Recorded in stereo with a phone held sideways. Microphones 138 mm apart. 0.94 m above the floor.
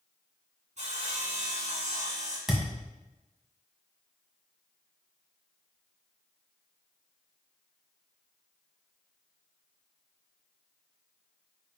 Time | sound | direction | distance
0.8 | sawing | 60° right (ahead or behind) | 2.5 m
2.5 | a thud | 5° right (ahead or behind) | 1.6 m